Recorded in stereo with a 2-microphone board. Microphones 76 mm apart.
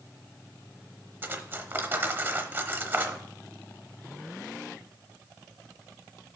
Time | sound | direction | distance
1.2 | cutlery clinking | 25° right (ahead or behind) | 0.8 m